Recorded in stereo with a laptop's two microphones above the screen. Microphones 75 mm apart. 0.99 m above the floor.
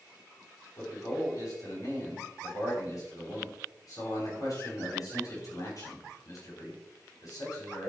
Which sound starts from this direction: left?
A man speaking, at 0.8 s.